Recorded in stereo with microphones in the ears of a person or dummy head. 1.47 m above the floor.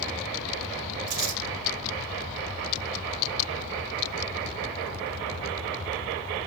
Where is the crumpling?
65° right (ahead or behind), 6 m.